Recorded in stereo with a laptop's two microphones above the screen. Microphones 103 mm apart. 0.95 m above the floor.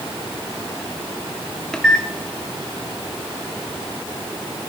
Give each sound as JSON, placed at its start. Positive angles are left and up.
{"t": 1.7, "sound": "a microwave", "side_deg": 10, "distance_m": 1.4}